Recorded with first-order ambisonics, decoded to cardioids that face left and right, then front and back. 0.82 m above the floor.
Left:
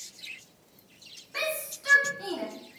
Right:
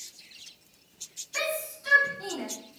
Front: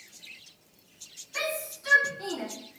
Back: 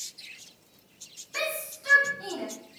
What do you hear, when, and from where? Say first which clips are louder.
1.3 s a shout: right 1 dB, even; 150° left, 1.1 m; by 2.5 s 60° left, 1.2 m